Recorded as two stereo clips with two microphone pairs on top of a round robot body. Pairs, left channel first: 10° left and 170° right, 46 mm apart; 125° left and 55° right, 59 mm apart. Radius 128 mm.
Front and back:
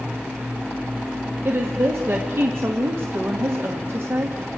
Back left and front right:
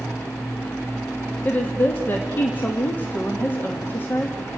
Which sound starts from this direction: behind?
A woman speaking, at 1.4 s.